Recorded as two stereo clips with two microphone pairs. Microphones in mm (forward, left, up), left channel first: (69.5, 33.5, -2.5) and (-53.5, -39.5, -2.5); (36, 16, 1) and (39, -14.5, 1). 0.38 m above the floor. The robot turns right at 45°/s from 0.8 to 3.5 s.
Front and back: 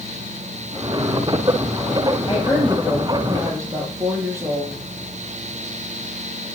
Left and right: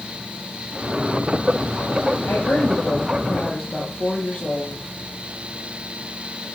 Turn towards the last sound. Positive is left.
turn(degrees=140)